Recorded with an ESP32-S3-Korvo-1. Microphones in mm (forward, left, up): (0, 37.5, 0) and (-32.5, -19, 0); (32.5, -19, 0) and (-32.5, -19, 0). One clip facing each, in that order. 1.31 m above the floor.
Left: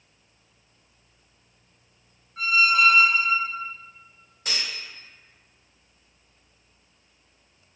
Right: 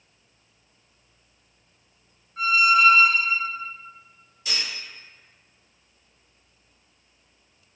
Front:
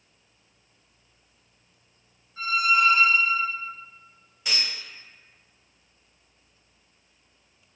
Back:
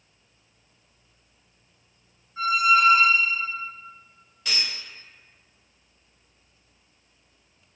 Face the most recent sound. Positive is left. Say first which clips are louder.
# even, even
turn(degrees=75)